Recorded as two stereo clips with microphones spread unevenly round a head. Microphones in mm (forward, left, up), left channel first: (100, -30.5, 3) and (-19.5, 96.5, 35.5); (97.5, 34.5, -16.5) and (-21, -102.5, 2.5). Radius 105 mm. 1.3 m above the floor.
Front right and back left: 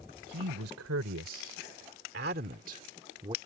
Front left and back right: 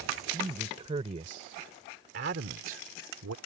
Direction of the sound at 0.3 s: 155° left.